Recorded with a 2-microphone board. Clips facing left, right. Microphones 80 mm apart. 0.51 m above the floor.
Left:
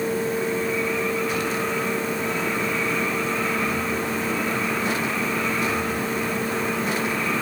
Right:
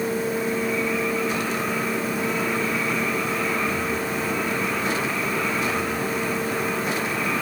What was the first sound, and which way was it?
Only background noise.